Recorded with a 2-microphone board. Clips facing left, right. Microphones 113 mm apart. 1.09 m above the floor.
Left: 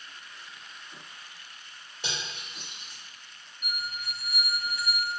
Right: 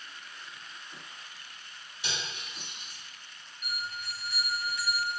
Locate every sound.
2.0 s cutlery clinking: 50° left (ahead or behind), 1.9 m
3.6 s a bell: 50° left (ahead or behind), 1.1 m